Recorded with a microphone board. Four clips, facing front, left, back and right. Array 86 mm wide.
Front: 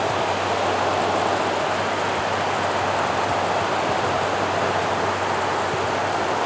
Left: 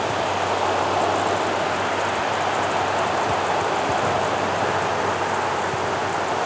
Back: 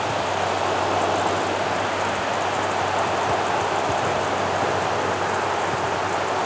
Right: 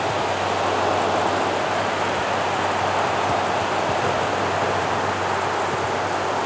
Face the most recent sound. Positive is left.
No sound to turn to.